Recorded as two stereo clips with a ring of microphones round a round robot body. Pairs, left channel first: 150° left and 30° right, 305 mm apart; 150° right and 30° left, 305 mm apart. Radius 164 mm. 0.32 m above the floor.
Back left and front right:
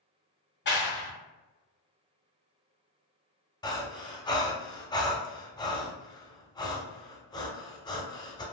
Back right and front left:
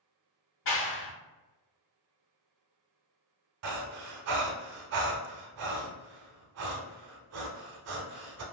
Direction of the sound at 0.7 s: 175° right.